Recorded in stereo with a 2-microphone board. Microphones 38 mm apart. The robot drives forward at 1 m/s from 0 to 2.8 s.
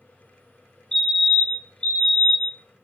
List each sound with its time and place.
0.9 s a fire alarm: 20° left (ahead or behind), 2.5 m; by 2.6 s 25° left (ahead or behind), 1.9 m